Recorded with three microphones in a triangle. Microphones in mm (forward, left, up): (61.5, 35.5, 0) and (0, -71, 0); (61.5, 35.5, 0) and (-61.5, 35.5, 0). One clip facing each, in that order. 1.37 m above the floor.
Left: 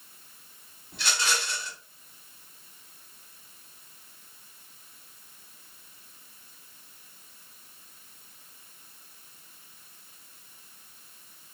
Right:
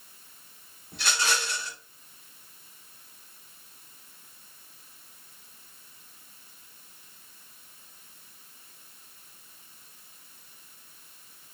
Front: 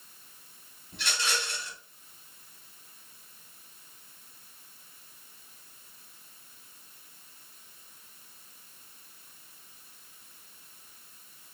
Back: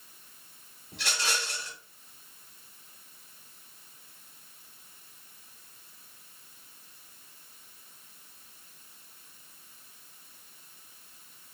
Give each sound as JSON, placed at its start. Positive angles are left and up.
{"t": 0.9, "sound": "a rattle", "azimuth_deg": 180, "distance_m": 2.5}